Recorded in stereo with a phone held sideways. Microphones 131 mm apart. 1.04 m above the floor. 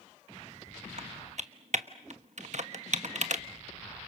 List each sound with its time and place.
1.0 s typing on a keyboard: 60° right (ahead or behind), 1.2 m